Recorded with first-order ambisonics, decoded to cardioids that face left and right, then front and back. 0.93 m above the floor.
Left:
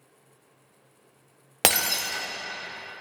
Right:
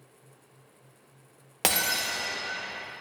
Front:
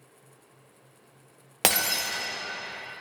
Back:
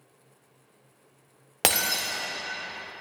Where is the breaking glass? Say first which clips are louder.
Left 3 dB, even; 90° left, 0.6 m.